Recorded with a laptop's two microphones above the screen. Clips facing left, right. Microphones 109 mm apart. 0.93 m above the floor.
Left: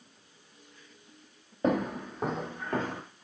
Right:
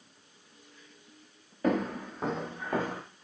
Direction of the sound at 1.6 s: 25° left (ahead or behind).